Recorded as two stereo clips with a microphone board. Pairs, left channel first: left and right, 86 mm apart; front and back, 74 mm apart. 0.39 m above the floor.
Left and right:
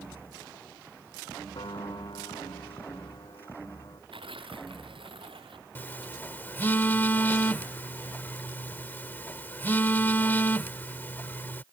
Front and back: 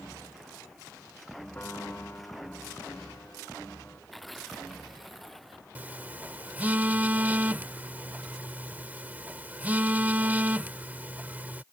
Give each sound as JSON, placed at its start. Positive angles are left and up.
{"t": 1.6, "sound": "a piano", "azimuth_deg": 70}
{"t": 4.1, "sound": "tearing paper", "azimuth_deg": -90}
{"t": 5.8, "sound": "a phone buzzing", "azimuth_deg": 135}